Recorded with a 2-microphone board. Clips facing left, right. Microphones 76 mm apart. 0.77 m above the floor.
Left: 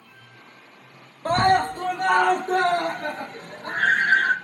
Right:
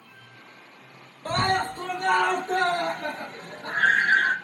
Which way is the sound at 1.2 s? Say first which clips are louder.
Left 6 dB; 40° left (ahead or behind).